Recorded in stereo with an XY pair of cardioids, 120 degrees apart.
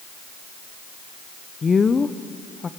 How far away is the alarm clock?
No alarm clock in this recording.